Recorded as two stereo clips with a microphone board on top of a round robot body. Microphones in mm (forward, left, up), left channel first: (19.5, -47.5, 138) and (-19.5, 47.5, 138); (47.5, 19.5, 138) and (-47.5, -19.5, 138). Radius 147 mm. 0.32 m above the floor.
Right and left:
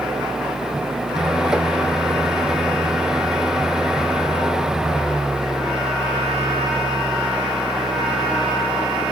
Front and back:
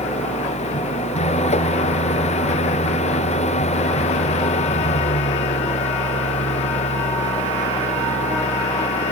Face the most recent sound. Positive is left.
turn(degrees=25)